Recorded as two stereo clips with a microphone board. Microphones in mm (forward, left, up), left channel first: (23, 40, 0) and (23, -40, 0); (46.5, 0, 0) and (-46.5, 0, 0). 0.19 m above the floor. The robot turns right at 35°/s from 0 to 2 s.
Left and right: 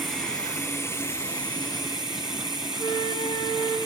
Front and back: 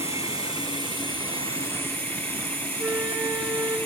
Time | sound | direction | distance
0.0 | running water | straight ahead | 2 m
2.8 | a flute | 115° left | 2.5 m